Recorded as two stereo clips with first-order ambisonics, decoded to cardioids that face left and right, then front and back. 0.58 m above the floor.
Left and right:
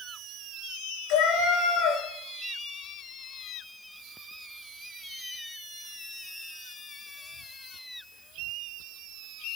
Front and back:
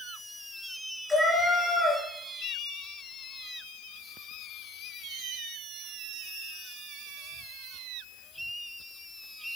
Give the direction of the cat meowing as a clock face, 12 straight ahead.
9 o'clock.